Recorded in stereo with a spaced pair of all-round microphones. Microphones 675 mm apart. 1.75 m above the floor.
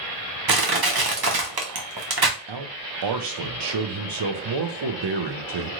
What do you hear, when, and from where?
0.5 s crushing: 35° right (ahead or behind), 0.6 m
2.5 s a man speaking: 40° right (ahead or behind), 0.5 m